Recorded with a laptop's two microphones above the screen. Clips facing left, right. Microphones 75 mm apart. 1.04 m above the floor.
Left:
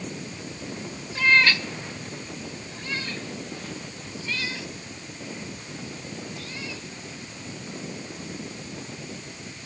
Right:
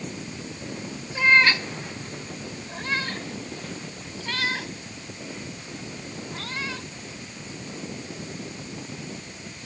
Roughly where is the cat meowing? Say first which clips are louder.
Right 1 dB; centre.